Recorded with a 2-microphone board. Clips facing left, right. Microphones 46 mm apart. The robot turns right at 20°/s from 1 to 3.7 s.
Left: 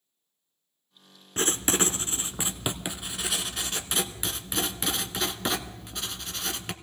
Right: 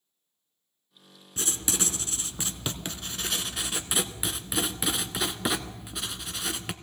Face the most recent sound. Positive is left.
turn(degrees=-175)